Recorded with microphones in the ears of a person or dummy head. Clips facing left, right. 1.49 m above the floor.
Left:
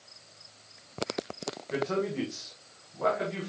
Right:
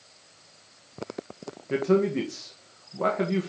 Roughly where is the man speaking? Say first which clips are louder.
Right 8 dB; right.